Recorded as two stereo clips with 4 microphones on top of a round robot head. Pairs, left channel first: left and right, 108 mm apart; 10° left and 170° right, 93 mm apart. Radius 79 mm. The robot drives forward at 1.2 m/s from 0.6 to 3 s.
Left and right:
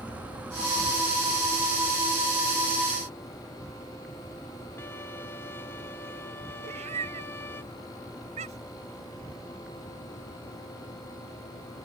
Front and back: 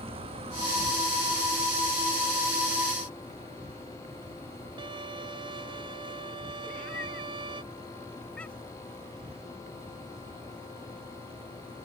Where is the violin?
160° left.